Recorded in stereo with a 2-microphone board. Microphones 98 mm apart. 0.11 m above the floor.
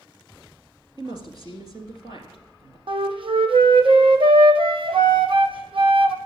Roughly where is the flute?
Right.